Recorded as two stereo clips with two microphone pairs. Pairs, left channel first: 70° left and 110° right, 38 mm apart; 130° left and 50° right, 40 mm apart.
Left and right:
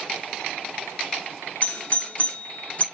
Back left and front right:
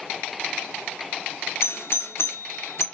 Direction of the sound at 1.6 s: 120° left.